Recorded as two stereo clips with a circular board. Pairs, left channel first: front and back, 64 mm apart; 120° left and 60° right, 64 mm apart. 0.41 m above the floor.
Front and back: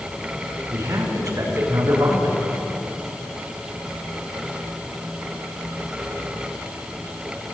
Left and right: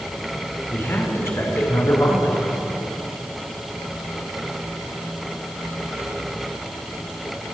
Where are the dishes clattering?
No dishes clattering in this recording.